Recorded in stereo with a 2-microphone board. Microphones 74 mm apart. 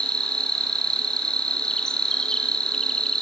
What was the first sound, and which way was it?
An insect, 10° left (ahead or behind).